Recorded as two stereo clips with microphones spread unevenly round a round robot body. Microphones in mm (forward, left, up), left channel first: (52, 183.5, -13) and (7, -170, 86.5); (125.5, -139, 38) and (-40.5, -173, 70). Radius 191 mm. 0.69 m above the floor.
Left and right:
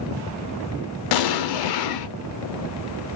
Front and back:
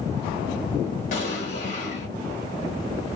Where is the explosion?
65° left, 0.6 m.